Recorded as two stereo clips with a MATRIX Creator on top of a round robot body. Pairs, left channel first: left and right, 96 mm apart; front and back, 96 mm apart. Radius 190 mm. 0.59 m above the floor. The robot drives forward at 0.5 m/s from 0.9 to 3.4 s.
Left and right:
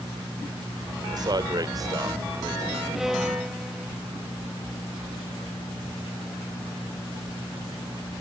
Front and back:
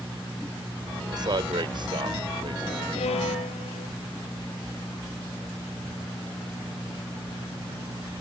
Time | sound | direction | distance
1.1 | a man speaking | 135° right | ?
3.0 | a violin | 5° right | ?